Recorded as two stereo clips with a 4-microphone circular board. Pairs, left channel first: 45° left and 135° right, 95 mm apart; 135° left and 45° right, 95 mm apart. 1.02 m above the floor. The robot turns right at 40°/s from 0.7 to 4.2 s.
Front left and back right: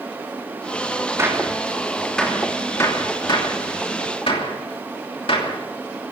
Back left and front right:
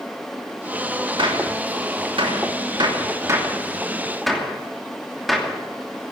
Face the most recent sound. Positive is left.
turn(degrees=45)